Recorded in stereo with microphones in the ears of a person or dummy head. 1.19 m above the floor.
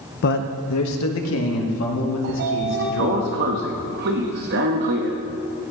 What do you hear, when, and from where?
0.2 s a man speaking: 50° left (ahead or behind), 0.6 m; by 3.2 s 60° left (ahead or behind), 3.5 m
2.2 s a sliding door: 55° right (ahead or behind), 0.8 m